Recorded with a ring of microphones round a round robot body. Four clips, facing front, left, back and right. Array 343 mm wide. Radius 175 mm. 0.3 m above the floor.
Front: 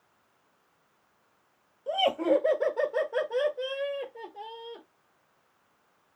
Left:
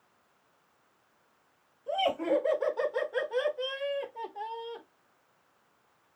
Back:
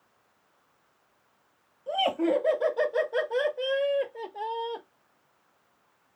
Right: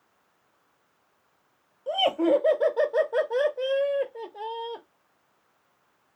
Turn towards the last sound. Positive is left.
turn(degrees=-130)